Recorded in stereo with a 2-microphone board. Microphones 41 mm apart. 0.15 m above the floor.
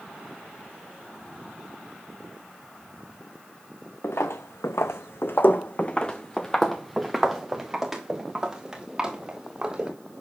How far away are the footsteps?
About 1.1 m.